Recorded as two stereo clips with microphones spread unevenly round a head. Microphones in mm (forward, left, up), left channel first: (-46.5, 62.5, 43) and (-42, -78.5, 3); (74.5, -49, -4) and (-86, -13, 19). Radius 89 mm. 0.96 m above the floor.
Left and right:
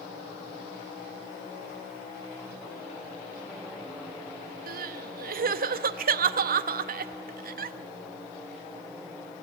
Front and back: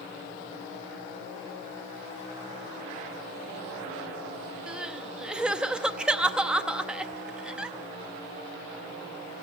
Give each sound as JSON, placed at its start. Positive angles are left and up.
{"t": 4.7, "sound": "crying", "azimuth_deg": -105, "distance_m": 0.8}